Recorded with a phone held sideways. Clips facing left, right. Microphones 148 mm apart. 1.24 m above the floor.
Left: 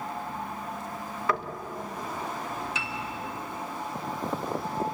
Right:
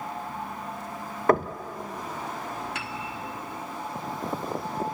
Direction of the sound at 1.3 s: 50° right (ahead or behind).